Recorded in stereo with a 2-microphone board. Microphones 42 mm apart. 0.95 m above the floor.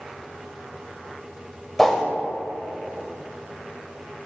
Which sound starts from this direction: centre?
A whoosh, at 1.8 s.